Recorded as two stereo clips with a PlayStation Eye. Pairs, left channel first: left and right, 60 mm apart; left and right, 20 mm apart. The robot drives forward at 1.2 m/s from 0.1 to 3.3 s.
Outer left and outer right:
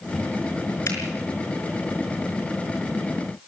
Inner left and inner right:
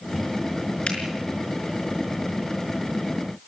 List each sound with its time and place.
0.9 s a finger snap: 60° left (ahead or behind), 5 m